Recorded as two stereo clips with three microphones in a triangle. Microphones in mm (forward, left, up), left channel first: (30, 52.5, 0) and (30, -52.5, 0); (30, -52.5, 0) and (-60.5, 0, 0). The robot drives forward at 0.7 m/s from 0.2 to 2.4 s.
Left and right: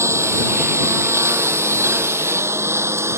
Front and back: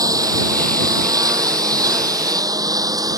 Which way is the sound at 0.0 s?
155° right.